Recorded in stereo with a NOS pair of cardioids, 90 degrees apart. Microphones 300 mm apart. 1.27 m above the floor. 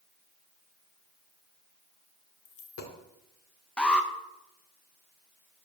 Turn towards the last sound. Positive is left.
turn(degrees=5)